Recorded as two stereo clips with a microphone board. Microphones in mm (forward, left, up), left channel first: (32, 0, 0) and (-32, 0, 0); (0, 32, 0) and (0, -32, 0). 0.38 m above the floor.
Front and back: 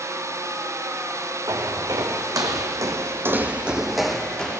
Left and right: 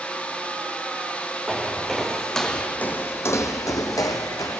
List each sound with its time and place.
1.5 s footsteps: 170° right, 2 m; by 4.6 s 75° left, 1.6 m